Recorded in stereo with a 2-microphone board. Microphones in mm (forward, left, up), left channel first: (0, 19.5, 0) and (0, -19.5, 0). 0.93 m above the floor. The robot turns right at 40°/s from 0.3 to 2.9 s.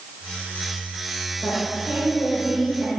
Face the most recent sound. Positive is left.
turn(degrees=-155)